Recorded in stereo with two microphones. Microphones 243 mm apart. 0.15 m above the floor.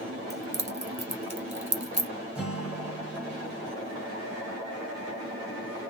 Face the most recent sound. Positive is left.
turn(degrees=-5)  # may be behind; listen again after turning